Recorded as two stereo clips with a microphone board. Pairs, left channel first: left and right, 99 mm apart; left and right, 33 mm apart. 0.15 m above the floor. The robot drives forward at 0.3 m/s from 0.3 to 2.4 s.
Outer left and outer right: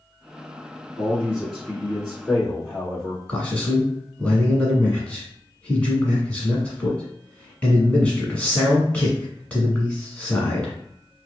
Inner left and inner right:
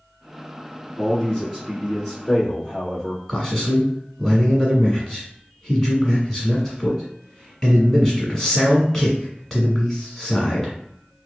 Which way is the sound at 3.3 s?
15° left (ahead or behind).